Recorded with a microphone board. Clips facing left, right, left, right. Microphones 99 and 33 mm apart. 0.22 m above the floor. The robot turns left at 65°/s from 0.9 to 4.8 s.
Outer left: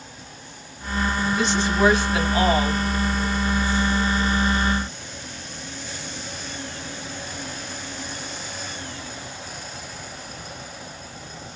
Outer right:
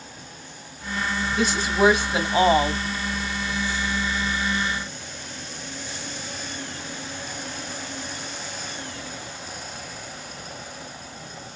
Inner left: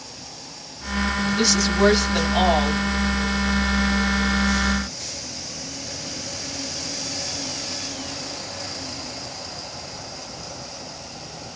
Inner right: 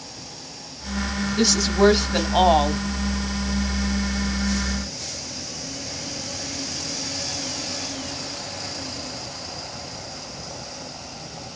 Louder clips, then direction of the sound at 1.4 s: Outer right 1 dB, inner right 2 dB; centre (ahead or behind).